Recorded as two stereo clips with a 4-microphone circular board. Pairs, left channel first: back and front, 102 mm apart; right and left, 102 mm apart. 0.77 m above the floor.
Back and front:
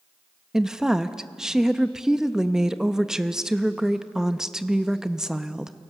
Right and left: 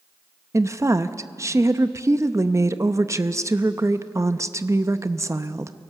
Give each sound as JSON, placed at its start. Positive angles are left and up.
{"t": 0.5, "sound": "a woman speaking", "azimuth_deg": 80, "distance_m": 0.6}